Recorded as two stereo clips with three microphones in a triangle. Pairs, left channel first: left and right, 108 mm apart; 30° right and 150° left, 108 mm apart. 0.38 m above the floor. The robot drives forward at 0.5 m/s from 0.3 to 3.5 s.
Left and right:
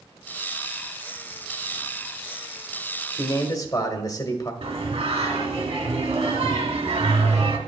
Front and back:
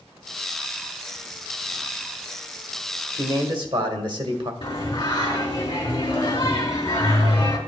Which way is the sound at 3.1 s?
120° left.